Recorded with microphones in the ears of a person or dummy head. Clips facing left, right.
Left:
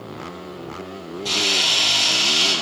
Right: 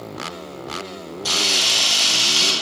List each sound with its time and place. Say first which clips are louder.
1.2 s a camera shutter: left 1 dB; 75° right (ahead or behind), 6 m